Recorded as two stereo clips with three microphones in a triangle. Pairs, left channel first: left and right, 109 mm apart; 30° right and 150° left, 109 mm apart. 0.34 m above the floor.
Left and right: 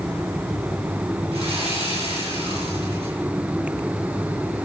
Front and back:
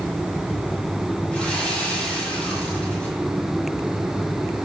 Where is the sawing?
110° right, 6 m.